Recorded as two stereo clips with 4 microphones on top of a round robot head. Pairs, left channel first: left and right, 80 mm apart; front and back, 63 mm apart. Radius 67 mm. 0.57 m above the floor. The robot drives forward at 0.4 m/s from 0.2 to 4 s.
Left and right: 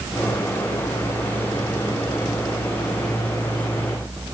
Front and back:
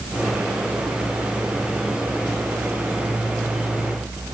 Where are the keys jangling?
I don't hear keys jangling.